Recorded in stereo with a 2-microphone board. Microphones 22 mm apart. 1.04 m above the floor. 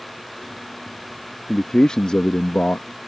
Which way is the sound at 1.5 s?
25° left (ahead or behind).